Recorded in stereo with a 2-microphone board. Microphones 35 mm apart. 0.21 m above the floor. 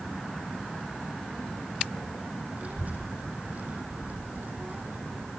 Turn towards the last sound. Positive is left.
turn(degrees=-55)  # may be behind; listen again after turning